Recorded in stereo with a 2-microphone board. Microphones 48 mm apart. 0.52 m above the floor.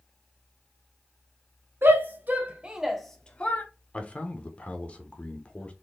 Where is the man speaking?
25° left (ahead or behind), 1.0 m.